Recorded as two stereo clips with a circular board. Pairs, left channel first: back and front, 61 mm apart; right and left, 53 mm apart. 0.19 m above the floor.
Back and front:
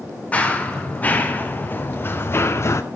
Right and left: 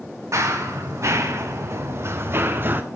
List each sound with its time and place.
0.3 s running footsteps: 115° left, 3.5 m; by 2.8 s 140° left, 1.6 m